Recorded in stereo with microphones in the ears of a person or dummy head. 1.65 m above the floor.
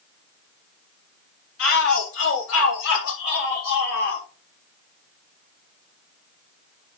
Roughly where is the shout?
Left.